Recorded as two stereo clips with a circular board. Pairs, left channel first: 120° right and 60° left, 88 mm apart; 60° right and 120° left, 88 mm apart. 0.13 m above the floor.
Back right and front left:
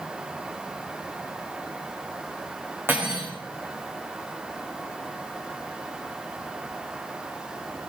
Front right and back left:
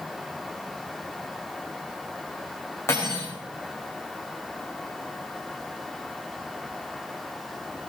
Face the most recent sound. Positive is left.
turn(degrees=-5)